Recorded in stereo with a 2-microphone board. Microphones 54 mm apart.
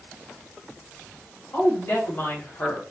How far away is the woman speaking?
About 2 m.